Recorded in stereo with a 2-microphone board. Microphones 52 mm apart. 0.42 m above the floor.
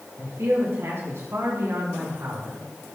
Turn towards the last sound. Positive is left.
turn(degrees=-65)  # may be behind; listen again after turning